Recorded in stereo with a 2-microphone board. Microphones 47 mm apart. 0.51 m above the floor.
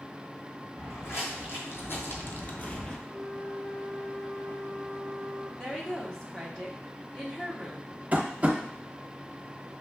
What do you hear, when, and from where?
0.8 s footsteps: 65° left (ahead or behind), 1.7 m; by 3.0 s 10° left (ahead or behind), 0.5 m
3.1 s a flute: 75° left (ahead or behind), 2.5 m
5.6 s a woman speaking: 20° left (ahead or behind), 1.1 m
8.1 s tapping: 30° right (ahead or behind), 0.8 m